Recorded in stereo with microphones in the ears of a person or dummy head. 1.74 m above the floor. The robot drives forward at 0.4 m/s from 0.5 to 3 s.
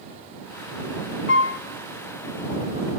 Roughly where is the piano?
Left.